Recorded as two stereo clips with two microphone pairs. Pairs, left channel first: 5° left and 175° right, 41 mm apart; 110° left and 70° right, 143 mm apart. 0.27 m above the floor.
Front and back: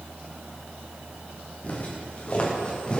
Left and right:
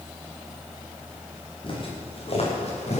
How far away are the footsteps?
About 6.5 m.